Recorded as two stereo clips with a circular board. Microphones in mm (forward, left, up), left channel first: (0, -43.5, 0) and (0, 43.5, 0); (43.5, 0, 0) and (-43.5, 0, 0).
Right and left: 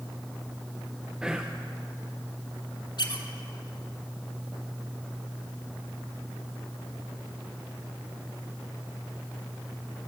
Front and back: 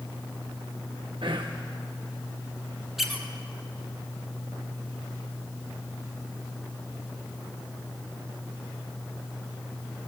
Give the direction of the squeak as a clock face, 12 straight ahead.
3 o'clock.